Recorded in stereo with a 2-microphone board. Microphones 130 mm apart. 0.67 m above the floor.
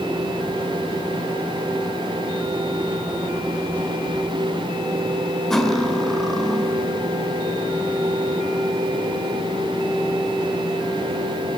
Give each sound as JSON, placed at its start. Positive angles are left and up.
{"t": 5.5, "sound": "cutlery clinking", "side_deg": 0, "distance_m": 1.7}